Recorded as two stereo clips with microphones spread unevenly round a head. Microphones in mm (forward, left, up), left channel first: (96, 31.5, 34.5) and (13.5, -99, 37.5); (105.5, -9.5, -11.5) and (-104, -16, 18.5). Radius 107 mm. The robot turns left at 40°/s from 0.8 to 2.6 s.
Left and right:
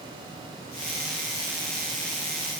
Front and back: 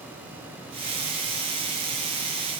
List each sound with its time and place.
Only background noise.